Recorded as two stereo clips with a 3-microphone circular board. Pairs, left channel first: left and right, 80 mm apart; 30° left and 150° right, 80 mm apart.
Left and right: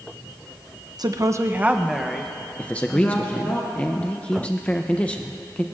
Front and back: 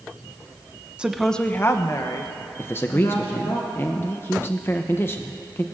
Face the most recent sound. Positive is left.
turn(degrees=35)